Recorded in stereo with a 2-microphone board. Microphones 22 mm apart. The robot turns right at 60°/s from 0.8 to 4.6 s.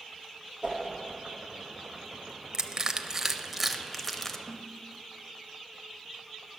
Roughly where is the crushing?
Right.